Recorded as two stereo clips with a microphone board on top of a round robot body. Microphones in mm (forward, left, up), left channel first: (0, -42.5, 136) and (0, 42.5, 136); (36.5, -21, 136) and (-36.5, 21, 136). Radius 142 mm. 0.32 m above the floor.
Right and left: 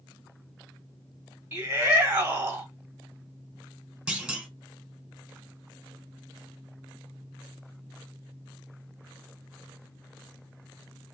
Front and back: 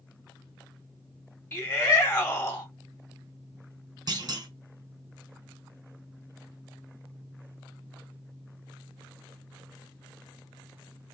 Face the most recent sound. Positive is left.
turn(degrees=170)